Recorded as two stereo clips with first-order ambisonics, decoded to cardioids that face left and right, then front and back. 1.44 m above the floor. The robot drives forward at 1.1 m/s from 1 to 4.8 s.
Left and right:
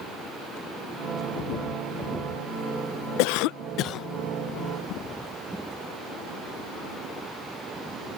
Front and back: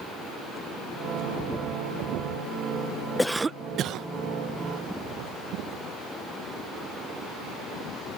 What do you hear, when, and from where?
3.2 s a cough: 85° left; by 4.1 s 140° left